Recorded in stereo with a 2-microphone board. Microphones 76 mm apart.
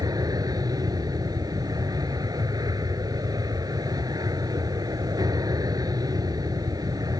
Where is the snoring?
I don't hear snoring.